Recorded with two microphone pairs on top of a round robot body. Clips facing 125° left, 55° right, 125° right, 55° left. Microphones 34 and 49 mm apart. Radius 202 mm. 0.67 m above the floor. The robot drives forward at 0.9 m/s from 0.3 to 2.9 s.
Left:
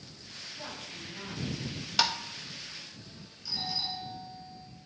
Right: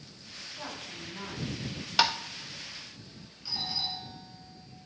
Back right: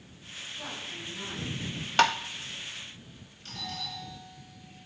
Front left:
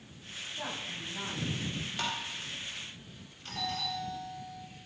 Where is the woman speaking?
10° left, 7.5 m.